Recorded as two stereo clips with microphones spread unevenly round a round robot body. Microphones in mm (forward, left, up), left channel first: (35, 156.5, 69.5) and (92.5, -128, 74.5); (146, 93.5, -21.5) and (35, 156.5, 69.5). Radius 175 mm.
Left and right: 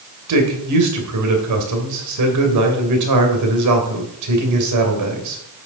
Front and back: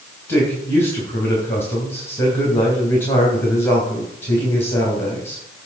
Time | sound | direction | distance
0.3 | a man speaking | 85° right | 2.5 m